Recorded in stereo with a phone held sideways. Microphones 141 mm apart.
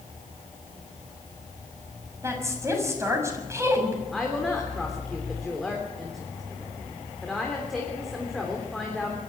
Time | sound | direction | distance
2.2 | a woman speaking | 20° right (ahead or behind) | 6 m
4.1 | a woman speaking | centre (ahead or behind) | 3.5 m